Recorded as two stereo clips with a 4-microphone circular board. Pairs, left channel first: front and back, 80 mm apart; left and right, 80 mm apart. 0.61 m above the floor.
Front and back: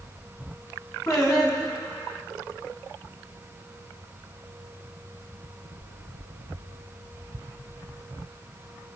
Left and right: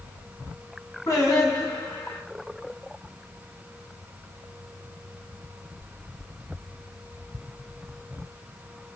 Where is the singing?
45° left, 2.5 m.